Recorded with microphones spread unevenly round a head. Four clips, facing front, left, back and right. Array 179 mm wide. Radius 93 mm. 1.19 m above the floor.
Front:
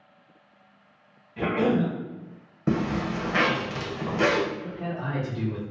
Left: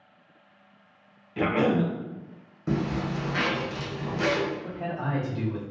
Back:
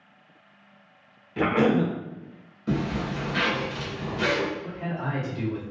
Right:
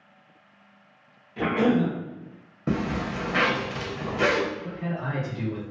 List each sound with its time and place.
1.4 s a cough: 150° left, 0.6 m
2.7 s a zipper: 35° right, 0.5 m
4.6 s a man speaking: 70° left, 1.1 m